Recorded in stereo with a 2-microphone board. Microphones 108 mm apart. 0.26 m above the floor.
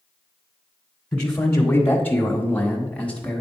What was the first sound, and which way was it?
A man speaking, 15° left (ahead or behind).